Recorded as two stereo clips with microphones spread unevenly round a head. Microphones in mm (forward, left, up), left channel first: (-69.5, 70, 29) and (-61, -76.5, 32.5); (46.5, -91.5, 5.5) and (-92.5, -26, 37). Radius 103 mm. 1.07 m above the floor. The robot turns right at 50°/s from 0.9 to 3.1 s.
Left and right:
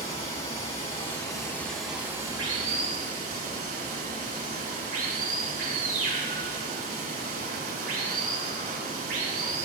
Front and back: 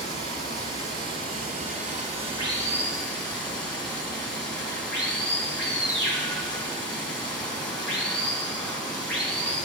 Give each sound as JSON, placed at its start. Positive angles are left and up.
{"t": 0.0, "sound": "running water", "azimuth_deg": 140, "distance_m": 4.0}